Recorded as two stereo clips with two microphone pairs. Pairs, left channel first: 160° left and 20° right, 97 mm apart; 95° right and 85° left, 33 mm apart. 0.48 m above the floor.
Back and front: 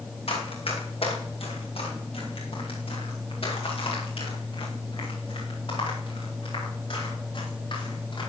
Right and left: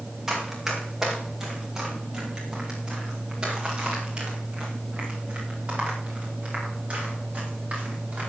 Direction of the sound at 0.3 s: 155° left.